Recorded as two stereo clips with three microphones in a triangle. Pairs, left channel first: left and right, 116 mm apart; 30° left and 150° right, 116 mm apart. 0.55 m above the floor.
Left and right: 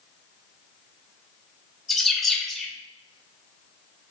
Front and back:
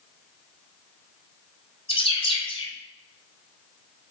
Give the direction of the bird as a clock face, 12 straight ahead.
12 o'clock.